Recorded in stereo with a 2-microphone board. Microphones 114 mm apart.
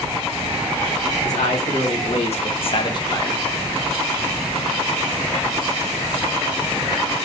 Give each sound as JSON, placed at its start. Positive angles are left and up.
{"t": 1.2, "sound": "a man speaking", "side_deg": 85, "distance_m": 1.8}